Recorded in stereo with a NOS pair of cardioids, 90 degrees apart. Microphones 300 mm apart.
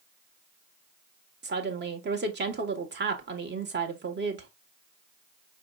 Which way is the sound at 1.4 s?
35° right.